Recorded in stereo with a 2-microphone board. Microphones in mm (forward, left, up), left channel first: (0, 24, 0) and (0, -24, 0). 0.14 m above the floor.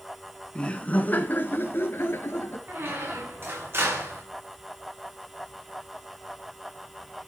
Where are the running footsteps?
No running footsteps in this recording.